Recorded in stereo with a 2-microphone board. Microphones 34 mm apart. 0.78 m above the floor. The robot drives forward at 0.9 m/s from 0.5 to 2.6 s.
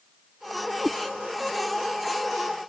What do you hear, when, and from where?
0.8 s a cat meowing: 30° right (ahead or behind), 0.7 m; by 1.0 s 25° right (ahead or behind), 0.8 m